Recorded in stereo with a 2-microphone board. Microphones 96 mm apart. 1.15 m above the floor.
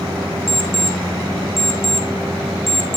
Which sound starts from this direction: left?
An alarm clock, at 0.5 s.